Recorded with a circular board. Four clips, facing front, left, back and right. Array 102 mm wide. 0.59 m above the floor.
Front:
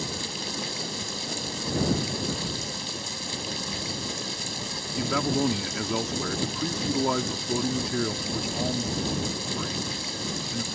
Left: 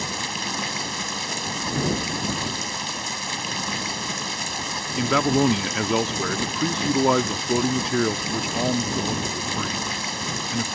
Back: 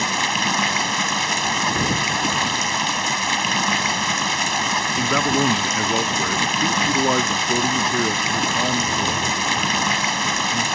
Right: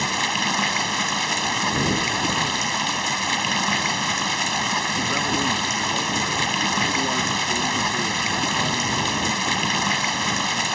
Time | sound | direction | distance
0.0 | running water | 160° right | ?
5.0 | a man speaking | 120° left | ?